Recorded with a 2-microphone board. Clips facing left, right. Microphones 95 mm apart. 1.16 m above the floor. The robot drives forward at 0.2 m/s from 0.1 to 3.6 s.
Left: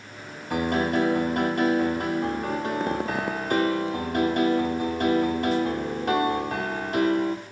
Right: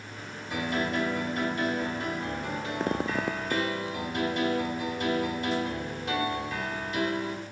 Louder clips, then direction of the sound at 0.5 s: Left 6 dB; 55° left (ahead or behind).